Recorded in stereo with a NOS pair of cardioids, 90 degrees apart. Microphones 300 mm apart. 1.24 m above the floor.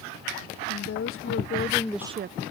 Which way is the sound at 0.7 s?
55° left.